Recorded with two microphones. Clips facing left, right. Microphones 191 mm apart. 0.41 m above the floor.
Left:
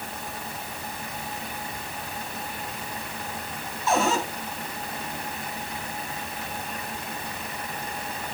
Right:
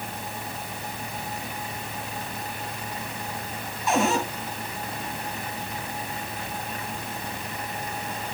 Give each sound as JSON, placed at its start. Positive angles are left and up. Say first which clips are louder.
{"t": 3.9, "sound": "a cupboard door", "louder": "right 1 dB", "side_deg": -15, "distance_m": 4.0}